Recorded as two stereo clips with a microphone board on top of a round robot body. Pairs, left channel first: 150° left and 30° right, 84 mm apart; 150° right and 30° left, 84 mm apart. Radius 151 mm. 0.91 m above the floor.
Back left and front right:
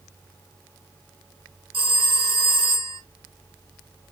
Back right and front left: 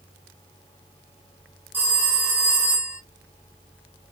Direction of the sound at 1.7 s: 40° right.